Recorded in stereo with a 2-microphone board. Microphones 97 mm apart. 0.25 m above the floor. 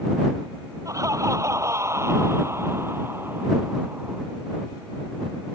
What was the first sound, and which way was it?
Laughter, 35° right (ahead or behind).